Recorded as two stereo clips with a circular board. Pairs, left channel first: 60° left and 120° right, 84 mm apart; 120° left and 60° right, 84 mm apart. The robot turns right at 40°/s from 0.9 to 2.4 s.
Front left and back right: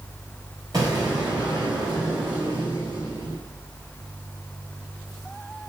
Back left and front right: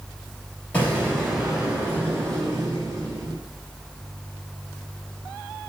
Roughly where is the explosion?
Behind.